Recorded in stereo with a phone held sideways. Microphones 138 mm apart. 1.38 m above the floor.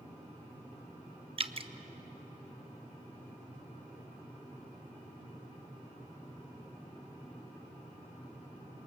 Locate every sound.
1.4 s dripping: 45° right (ahead or behind), 0.7 m